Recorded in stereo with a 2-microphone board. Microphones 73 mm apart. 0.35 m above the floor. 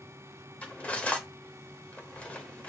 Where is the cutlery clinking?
20° left (ahead or behind), 0.7 m.